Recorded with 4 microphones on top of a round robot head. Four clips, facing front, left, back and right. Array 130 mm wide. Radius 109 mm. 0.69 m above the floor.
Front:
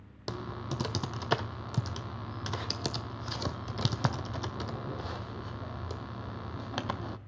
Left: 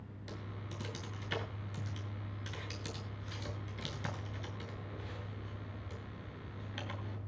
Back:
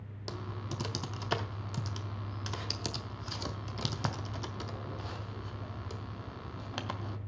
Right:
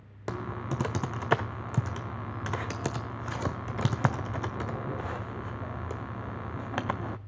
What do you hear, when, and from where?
0.3 s typing on a keyboard: 75° right, 0.6 m